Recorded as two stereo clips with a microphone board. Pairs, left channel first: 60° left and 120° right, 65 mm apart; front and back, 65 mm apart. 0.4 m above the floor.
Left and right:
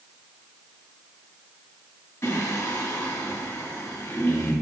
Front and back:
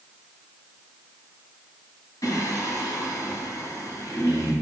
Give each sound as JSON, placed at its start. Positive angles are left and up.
{"t": 2.2, "sound": "singing", "azimuth_deg": 20, "distance_m": 2.0}